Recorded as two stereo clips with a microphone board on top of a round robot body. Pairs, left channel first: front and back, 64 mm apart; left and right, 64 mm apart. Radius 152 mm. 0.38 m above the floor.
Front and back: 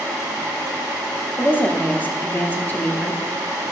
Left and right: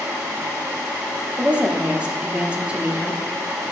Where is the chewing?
I don't hear chewing.